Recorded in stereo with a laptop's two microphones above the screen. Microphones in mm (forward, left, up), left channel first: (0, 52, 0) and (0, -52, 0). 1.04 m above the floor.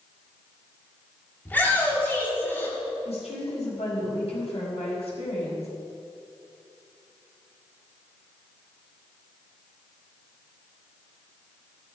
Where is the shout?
15° left (ahead or behind), 3 m; by 2.8 s 20° left (ahead or behind), 2 m.